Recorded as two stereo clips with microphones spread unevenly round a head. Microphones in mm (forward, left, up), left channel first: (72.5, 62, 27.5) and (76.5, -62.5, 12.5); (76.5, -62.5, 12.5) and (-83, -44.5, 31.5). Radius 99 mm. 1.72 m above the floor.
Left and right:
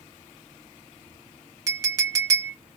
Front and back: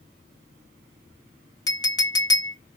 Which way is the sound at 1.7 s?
50° right.